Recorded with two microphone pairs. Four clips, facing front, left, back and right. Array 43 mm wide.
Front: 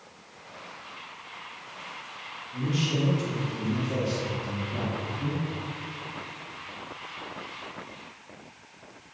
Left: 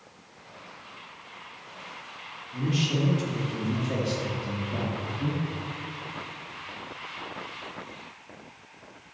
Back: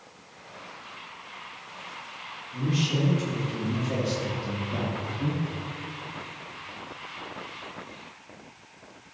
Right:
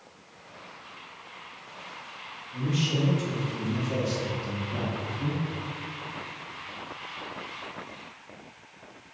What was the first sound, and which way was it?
A man speaking, 95° left.